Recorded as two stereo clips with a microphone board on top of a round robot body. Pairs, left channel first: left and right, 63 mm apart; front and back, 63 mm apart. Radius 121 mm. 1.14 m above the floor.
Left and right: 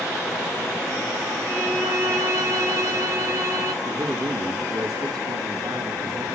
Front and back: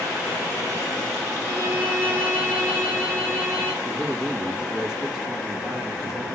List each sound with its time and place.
1.4 s a violin: 120° right, 3 m
3.8 s a man speaking: 95° right, 2.5 m